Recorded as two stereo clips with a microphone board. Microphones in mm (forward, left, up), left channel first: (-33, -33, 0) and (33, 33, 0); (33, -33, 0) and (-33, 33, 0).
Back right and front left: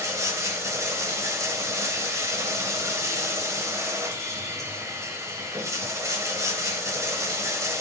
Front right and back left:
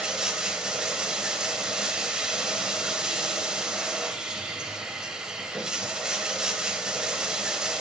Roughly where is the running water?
Ahead left.